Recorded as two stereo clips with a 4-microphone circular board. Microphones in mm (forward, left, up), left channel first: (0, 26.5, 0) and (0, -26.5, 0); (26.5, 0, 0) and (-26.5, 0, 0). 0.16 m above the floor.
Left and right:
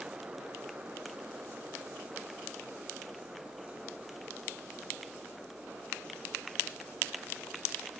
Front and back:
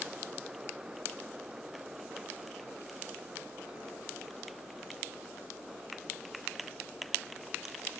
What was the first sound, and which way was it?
Only background noise.